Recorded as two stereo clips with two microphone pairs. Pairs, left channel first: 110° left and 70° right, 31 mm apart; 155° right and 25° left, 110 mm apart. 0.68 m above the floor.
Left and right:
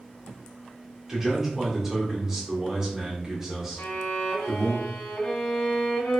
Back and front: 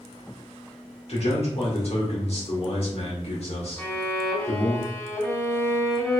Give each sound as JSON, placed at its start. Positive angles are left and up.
{"t": 1.1, "sound": "a man speaking", "azimuth_deg": -140, "distance_m": 1.4}
{"t": 3.8, "sound": "a violin", "azimuth_deg": 135, "distance_m": 1.6}